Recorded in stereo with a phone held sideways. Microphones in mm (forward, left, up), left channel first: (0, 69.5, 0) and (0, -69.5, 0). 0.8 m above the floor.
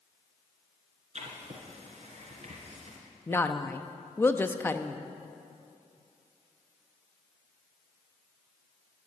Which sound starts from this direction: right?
Writing, at 1.1 s.